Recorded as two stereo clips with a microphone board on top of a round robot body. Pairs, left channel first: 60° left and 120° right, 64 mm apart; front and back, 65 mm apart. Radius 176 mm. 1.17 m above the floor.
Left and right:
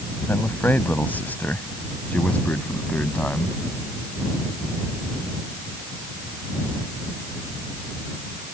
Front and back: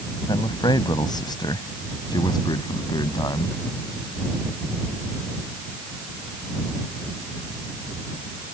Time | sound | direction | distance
0.3 | a man speaking | 5° right | ?